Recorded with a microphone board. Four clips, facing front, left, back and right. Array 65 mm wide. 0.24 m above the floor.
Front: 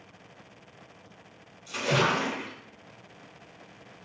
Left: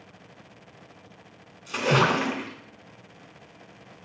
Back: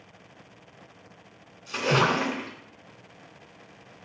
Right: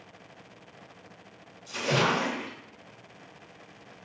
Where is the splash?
125° left, 0.6 m.